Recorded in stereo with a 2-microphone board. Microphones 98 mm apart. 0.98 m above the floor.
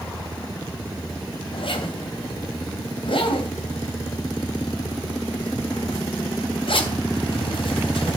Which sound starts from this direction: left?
A zipper, at 1.5 s.